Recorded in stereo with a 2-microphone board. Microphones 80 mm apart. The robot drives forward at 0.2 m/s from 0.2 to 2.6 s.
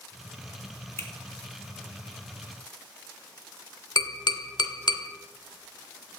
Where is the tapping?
70° left (ahead or behind), 0.7 m.